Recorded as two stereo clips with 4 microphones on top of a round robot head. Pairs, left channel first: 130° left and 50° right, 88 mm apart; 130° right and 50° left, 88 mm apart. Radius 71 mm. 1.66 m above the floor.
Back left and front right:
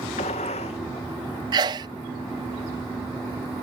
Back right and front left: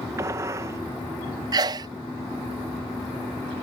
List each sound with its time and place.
0.2 s a gunshot: 110° left
1.5 s a sneeze: straight ahead